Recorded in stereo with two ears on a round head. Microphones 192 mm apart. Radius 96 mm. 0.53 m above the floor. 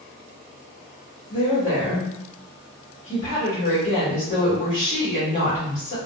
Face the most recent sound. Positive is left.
turn(degrees=35)  # may be behind; listen again after turning